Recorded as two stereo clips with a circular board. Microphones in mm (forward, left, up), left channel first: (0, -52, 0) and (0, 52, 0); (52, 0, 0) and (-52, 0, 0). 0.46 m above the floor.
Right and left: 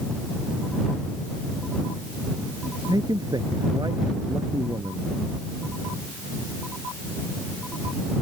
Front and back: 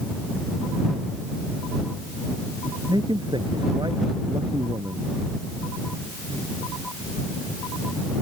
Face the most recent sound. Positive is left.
turn(degrees=140)